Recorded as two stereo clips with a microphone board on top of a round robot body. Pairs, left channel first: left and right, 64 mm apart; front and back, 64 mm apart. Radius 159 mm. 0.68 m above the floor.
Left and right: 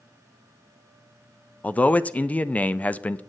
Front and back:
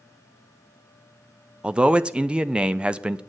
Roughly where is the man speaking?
Behind left.